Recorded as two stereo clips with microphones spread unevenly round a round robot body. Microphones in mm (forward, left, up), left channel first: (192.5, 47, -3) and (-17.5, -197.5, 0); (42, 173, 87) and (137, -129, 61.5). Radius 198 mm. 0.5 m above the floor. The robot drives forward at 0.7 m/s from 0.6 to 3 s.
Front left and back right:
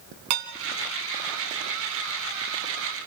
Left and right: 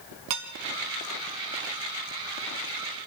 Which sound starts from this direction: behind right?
Dishes clattering, at 0.3 s.